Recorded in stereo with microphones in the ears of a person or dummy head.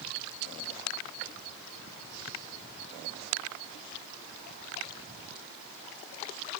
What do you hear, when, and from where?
Only background noise.